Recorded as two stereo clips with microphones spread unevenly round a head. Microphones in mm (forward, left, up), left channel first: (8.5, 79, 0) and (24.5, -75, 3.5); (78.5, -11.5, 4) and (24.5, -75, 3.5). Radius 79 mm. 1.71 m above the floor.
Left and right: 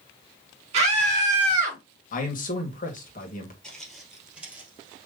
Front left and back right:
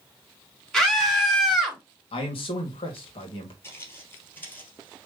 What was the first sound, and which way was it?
A scream, 35° right.